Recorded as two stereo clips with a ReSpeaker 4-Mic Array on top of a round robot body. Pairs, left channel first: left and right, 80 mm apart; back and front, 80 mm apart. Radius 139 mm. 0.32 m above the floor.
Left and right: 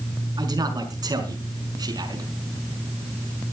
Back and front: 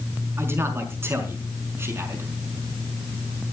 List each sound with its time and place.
0.4 s a man speaking: 60° right, 5 m